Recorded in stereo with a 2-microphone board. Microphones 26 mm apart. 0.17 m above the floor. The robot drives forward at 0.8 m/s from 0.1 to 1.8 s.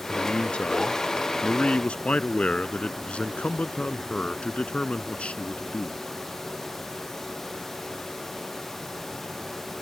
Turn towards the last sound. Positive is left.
turn(degrees=50)  # may be behind; listen again after turning